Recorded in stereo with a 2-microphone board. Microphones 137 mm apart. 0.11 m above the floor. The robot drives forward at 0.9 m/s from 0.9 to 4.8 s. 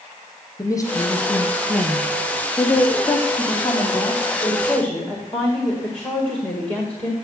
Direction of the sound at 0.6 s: 25° left (ahead or behind).